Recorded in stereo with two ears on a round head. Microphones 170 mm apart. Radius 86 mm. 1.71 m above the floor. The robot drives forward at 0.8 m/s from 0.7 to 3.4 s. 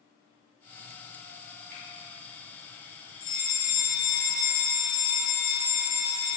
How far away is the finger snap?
About 2.5 m.